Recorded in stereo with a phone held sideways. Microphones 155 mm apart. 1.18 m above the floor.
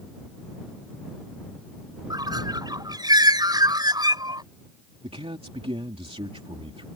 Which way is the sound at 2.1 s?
25° right (ahead or behind).